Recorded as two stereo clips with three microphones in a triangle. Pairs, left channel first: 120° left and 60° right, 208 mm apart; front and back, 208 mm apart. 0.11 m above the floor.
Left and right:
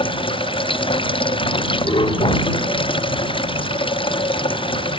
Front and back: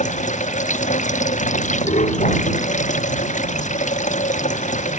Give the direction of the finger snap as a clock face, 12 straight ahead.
I don't hear a finger snap.